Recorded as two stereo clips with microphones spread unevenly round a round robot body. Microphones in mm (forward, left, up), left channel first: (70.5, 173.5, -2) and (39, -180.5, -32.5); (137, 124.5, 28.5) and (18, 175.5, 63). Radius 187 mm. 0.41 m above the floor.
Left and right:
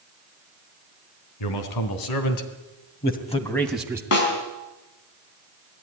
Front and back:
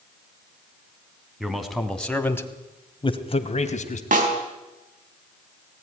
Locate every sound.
1.4 s a man speaking: 70° left, 3.5 m; by 4.0 s 15° right, 2.5 m
4.1 s a snare drum: 140° left, 4 m